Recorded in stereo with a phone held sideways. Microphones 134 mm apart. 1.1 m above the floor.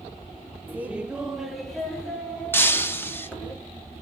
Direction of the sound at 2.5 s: 15° left (ahead or behind).